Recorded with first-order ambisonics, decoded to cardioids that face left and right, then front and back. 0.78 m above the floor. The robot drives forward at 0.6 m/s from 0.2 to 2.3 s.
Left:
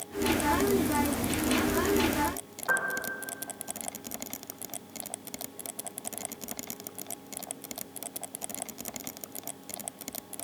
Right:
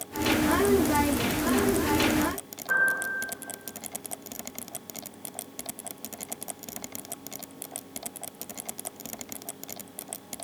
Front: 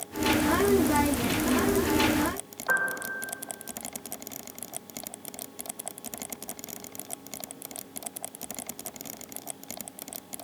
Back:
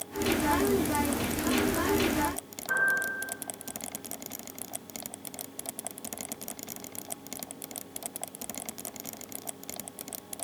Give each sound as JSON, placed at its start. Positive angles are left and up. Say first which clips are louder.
{"t": 2.7, "sound": "a piano", "louder": "right 5 dB, back 1 dB", "azimuth_deg": 60, "distance_m": 2.0}